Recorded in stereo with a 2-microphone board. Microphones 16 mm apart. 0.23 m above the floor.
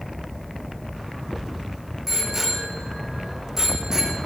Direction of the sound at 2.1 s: 15° right (ahead or behind).